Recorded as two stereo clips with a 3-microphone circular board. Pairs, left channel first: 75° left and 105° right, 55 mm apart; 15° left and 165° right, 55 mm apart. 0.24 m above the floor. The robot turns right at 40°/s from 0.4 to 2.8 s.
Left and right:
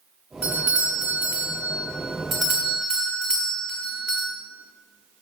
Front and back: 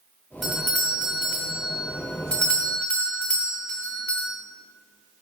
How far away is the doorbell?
About 1.4 m.